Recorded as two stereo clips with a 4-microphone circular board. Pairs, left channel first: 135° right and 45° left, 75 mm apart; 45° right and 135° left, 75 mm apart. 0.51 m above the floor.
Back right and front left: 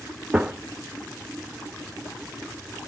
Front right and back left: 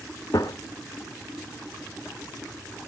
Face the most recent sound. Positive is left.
turn(degrees=-30)